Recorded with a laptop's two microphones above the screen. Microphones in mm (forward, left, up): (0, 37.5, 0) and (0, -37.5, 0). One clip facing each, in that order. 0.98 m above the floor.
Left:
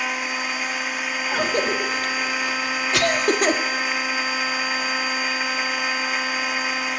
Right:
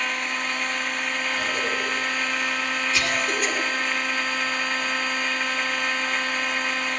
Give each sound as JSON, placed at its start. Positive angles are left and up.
{"t": 0.0, "sound": "a machine running", "side_deg": 5, "distance_m": 1.4}
{"t": 1.3, "sound": "a cough", "side_deg": 70, "distance_m": 1.8}